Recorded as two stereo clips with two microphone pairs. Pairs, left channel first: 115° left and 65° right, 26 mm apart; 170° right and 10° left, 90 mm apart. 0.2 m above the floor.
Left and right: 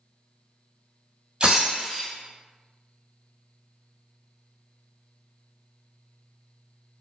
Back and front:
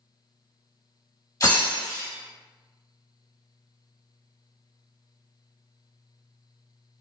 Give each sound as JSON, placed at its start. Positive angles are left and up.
{"t": 1.4, "sound": "breaking glass", "azimuth_deg": -115, "distance_m": 1.5}